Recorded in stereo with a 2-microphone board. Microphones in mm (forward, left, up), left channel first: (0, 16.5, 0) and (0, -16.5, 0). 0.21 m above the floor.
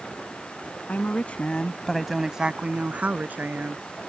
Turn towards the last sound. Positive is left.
turn(degrees=-60)  # may be behind; listen again after turning